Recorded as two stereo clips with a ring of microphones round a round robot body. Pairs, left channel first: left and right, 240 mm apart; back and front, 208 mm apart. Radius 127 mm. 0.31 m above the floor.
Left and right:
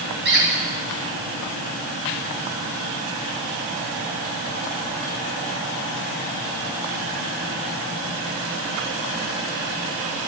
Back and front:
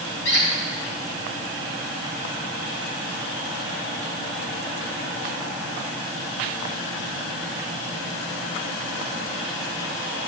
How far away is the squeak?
About 10 m.